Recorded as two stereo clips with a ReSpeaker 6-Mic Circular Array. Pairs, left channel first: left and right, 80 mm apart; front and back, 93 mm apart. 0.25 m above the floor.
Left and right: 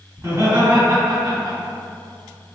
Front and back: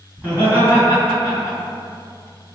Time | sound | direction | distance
0.2 | laughter | 115° right | 1.8 m